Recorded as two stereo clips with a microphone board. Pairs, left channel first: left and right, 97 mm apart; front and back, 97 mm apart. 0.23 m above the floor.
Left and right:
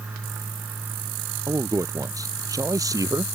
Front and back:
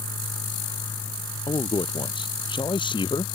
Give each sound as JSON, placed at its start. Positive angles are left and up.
{"t": 1.5, "sound": "a man speaking", "azimuth_deg": -35}